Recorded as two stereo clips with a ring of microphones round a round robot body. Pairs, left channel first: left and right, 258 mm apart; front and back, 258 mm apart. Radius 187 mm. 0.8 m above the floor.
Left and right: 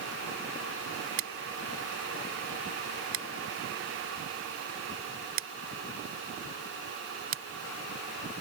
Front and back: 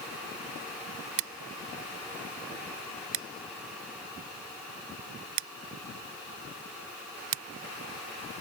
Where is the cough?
No cough in this recording.